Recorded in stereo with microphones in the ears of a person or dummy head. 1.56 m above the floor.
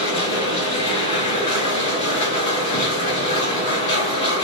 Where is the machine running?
30° left (ahead or behind), 1.1 m.